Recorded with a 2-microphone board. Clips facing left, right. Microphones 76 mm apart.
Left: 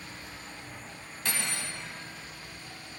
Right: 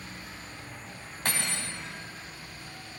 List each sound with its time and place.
0.0 s an insect: 45° right (ahead or behind), 1.1 m
1.2 s cutlery clinking: 50° right (ahead or behind), 0.9 m